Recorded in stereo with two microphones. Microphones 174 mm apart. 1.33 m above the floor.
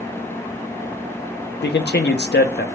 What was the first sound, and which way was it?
A man speaking, 75° left (ahead or behind).